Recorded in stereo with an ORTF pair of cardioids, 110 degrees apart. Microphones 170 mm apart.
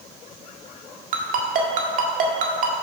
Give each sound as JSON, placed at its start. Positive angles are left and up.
{"t": 1.1, "sound": "a ringtone", "azimuth_deg": -55, "distance_m": 1.7}